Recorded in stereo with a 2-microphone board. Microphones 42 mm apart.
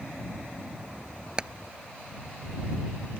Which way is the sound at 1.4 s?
20° right (ahead or behind).